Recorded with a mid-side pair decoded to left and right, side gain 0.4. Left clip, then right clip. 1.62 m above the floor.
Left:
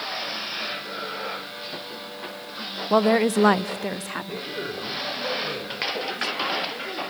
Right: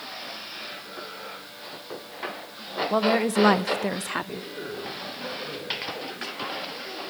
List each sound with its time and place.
2.9 s a woman speaking: 40° left, 1.1 m; by 4.5 s 35° right, 1.3 m
4.3 s a man speaking: 45° left, 5.5 m